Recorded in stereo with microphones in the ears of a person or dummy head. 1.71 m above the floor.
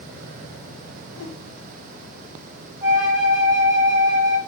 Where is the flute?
15° right (ahead or behind), 0.9 m.